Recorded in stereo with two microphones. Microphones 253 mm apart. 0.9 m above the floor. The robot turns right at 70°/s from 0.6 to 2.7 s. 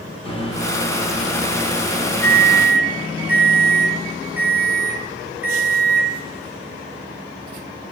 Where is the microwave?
50° left, 0.5 m; by 6.2 s 165° right, 0.5 m.